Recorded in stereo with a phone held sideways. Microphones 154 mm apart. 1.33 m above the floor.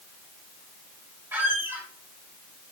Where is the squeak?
15° right (ahead or behind), 1.0 m.